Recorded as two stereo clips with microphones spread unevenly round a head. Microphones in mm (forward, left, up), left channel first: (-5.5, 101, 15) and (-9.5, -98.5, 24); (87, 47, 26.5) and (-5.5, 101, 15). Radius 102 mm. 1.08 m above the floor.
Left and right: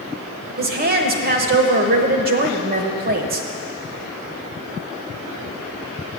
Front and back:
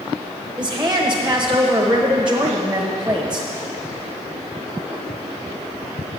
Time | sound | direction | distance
0.6 | a woman speaking | 130° right | 1.0 m